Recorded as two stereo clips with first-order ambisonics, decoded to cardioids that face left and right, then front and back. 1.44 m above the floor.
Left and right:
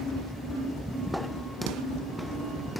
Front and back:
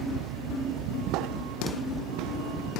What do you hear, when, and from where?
0.0 s a vehicle: 175° left